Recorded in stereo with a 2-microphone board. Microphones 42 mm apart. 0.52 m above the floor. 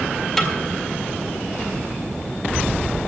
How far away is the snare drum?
About 1.8 m.